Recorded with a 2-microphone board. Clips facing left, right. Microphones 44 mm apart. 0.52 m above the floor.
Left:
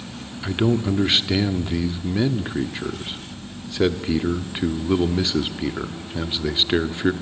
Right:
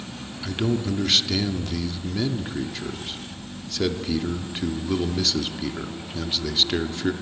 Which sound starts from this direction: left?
A man speaking, at 0.4 s.